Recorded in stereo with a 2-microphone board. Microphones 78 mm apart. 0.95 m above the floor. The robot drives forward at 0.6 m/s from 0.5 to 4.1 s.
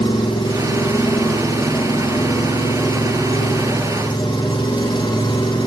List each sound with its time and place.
0.0 s an engine running: 85° left, 9.5 m; by 5.7 s 75° left (ahead or behind), 9.5 m